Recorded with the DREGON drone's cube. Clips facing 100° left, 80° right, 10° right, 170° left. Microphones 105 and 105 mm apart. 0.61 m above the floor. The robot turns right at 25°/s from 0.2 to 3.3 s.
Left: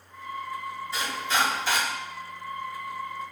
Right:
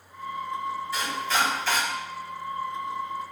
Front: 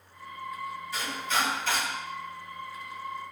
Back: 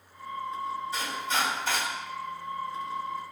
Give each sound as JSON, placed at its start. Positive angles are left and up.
{"t": 0.9, "sound": "chopping", "azimuth_deg": 140, "distance_m": 1.3}